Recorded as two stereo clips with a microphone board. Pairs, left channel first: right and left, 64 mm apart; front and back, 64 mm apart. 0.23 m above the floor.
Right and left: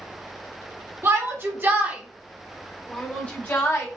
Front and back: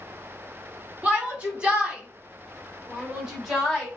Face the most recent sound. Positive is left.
turn(degrees=-90)